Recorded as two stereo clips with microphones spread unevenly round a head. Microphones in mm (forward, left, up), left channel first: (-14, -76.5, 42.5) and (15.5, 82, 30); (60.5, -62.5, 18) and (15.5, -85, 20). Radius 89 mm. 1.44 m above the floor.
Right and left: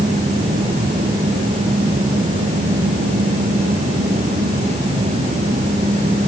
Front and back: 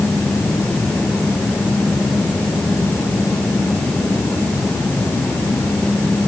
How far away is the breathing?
No breathing in this recording.